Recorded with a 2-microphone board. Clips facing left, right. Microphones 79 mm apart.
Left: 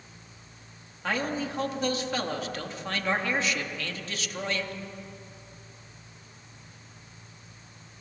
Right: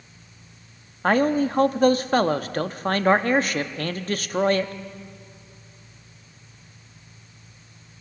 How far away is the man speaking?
About 1.0 m.